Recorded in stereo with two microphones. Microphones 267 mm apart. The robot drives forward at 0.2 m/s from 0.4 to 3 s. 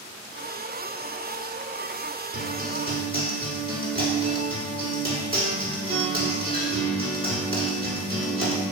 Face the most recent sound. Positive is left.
turn(degrees=-35)  # may be behind; listen again after turning